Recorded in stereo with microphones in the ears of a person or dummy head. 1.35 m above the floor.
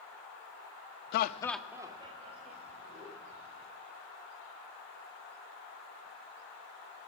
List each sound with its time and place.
1.1 s laughter: 75° left (ahead or behind), 0.6 m; by 3.7 s 40° right (ahead or behind), 3.5 m